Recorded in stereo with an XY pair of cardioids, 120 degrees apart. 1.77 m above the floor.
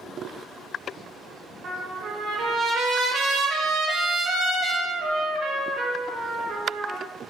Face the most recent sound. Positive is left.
turn(degrees=-60)